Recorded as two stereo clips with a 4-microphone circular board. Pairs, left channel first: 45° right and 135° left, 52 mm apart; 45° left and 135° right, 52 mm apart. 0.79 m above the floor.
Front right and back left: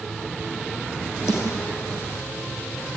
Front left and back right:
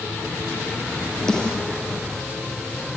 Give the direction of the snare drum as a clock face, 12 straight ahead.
1 o'clock.